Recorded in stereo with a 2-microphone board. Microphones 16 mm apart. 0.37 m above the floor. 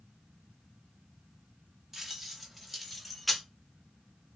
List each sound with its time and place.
1.9 s keys jangling: 25° right (ahead or behind), 1.3 m; by 3.4 s 10° left (ahead or behind), 0.8 m